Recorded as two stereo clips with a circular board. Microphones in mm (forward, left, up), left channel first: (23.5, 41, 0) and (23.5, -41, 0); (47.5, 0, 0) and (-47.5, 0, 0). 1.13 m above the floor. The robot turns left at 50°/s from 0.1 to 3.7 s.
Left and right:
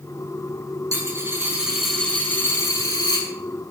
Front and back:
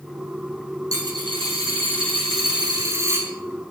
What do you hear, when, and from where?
0.9 s a dropped coin: 130° right, 6.5 m; by 3.3 s 110° left, 6.5 m